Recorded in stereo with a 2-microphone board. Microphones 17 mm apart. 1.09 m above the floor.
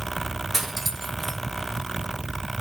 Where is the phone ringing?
No phone ringing in this recording.